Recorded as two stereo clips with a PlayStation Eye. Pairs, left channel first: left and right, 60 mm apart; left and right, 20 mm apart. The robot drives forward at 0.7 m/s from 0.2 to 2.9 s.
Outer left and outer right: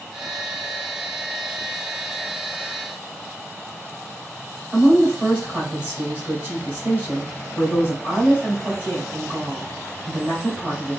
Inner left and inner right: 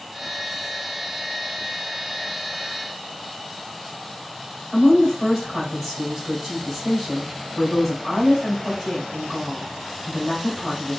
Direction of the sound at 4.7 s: 20° right (ahead or behind).